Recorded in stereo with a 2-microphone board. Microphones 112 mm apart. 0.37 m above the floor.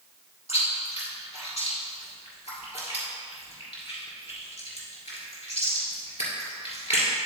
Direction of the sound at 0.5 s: 70° left (ahead or behind).